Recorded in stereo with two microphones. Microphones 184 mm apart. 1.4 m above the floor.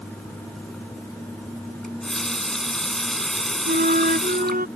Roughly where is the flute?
Right.